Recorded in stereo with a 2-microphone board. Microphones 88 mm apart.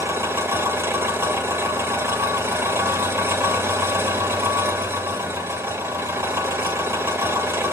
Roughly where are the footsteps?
No footsteps in this recording.